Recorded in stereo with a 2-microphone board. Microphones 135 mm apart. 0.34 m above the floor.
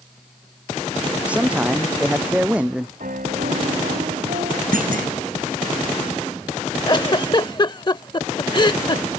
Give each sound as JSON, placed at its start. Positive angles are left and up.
{"t": 1.2, "sound": "a man speaking", "side_deg": -10}
{"t": 3.0, "sound": "a piano", "side_deg": -85}
{"t": 4.7, "sound": "a clunk", "side_deg": -85}
{"t": 6.9, "sound": "a giggle", "side_deg": 35}